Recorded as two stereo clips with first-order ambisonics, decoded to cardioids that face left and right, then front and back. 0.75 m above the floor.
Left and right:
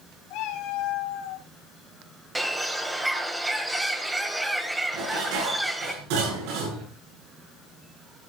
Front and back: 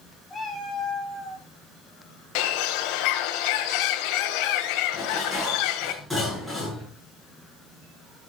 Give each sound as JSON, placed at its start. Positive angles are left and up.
{"t": 0.3, "sound": "a cat meowing", "azimuth_deg": 85, "distance_m": 1.9}
{"t": 2.4, "sound": "a bird", "azimuth_deg": -5, "distance_m": 1.3}
{"t": 4.9, "sound": "dishes clattering", "azimuth_deg": -90, "distance_m": 8.0}